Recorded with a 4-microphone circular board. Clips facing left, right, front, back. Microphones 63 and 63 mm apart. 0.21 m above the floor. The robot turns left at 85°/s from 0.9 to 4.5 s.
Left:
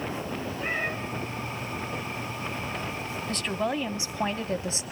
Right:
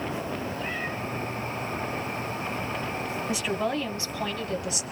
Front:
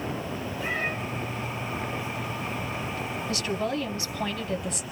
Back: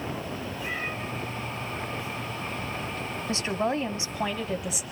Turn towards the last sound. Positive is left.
turn(degrees=100)